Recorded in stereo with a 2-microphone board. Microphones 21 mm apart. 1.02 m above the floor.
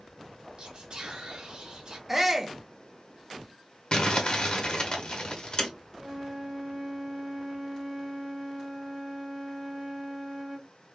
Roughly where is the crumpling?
Left.